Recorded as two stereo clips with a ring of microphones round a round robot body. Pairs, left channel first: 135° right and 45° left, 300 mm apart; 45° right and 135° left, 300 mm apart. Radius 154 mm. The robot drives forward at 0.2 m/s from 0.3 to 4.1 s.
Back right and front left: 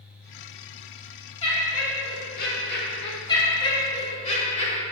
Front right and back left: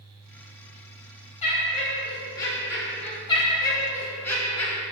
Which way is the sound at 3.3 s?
90° right.